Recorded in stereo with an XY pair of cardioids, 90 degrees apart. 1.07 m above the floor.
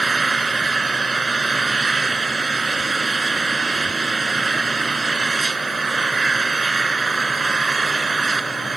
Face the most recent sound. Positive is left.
turn(degrees=-30)